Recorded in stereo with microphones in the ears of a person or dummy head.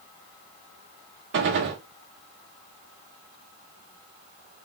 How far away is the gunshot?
About 0.8 m.